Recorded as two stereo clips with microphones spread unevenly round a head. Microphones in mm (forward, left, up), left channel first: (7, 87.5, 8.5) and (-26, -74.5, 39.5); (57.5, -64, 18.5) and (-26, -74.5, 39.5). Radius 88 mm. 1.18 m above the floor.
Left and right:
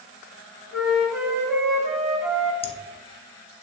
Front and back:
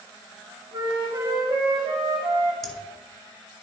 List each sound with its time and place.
0.7 s a flute: straight behind, 1.6 m
2.6 s laughter: 75° left, 0.9 m